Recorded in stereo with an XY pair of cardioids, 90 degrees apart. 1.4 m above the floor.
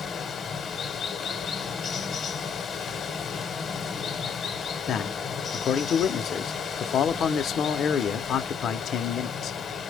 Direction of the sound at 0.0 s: 55° left.